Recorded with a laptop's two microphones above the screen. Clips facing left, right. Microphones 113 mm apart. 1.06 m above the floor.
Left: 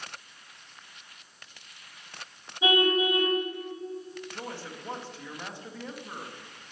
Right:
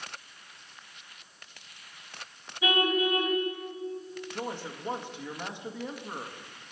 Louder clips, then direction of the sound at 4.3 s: Right 7 dB; 15° right (ahead or behind).